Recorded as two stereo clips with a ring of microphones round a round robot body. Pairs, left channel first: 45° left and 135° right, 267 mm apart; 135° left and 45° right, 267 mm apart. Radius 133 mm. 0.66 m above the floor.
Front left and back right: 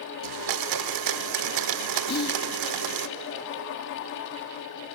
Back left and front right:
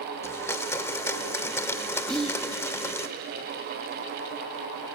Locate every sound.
0.2 s a blender: 145° right, 0.6 m
2.1 s whispering: 50° left, 0.9 m